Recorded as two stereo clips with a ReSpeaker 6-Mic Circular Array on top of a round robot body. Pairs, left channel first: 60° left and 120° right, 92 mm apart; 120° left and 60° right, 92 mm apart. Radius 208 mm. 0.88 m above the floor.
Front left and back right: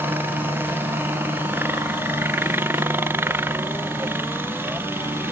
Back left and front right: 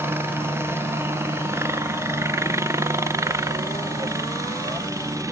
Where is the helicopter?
85° right; by 5.3 s 75° right.